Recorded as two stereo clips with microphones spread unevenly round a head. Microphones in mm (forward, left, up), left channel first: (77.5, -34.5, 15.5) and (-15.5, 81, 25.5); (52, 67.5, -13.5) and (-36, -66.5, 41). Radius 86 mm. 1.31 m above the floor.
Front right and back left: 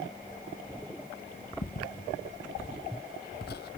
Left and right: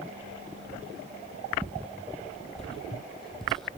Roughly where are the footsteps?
Ahead right.